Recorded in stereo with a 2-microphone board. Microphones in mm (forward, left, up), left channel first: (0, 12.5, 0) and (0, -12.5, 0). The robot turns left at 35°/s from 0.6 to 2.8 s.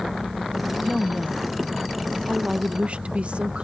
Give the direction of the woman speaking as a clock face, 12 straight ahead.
12 o'clock.